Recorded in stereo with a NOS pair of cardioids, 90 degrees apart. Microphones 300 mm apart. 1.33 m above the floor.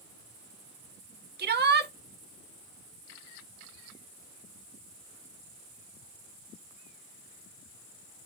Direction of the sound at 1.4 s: 35° right.